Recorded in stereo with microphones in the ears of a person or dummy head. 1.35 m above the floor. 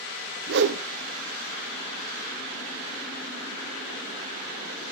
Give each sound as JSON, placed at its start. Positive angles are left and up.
{"t": 0.5, "sound": "a whoosh", "side_deg": -55, "distance_m": 0.7}